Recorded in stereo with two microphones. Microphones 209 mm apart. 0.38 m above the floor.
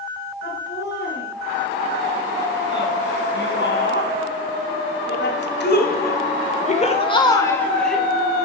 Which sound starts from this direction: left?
Laughter, at 0.4 s.